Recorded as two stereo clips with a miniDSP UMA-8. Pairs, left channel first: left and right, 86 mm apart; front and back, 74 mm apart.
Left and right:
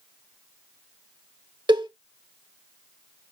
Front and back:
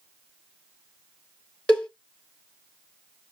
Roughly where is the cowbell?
Right.